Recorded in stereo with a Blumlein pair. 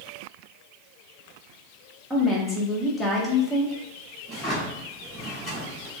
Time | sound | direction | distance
2.1 | a woman speaking | straight ahead | 1.1 m
4.3 | a drawer | 5° right | 1.7 m